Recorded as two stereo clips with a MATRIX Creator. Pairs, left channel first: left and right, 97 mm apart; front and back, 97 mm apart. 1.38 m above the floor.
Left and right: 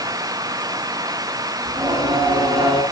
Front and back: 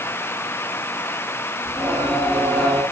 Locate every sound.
1.6 s singing: 90° right, 7 m